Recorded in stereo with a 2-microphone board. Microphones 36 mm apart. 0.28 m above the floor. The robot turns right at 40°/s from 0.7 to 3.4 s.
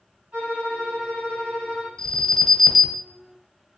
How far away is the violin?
About 1.8 m.